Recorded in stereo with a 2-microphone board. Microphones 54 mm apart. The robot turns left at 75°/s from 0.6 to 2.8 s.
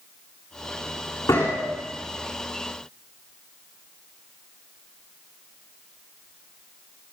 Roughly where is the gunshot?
Left.